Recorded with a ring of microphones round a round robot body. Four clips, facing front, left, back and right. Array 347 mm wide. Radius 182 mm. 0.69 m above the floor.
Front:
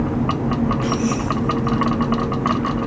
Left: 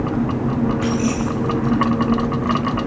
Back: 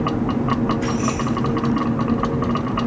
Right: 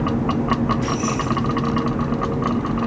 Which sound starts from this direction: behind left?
Keys jangling, at 0.8 s.